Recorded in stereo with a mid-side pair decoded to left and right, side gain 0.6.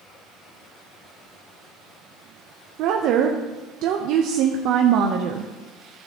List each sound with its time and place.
2.8 s a woman speaking: 65° right, 0.7 m